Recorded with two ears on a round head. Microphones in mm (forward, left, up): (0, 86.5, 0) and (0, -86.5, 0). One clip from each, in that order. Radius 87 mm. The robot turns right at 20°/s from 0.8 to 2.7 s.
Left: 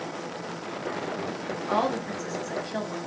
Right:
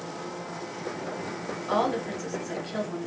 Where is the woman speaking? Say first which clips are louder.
Even; centre (ahead or behind), 0.7 m; by 3.1 s 10° left (ahead or behind), 0.7 m.